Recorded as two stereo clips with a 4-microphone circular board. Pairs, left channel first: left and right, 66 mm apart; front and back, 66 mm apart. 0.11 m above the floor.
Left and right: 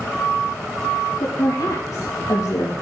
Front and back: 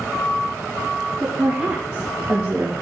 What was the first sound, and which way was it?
A woman speaking, 110° left.